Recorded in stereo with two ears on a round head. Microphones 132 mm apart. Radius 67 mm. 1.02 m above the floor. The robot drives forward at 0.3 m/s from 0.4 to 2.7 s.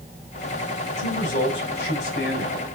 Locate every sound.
1.0 s a man speaking: 85° left, 4 m